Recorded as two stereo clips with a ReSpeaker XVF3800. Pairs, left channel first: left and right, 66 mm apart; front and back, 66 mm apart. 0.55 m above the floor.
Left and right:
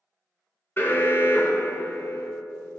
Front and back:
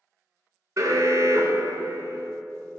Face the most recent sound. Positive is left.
turn(degrees=145)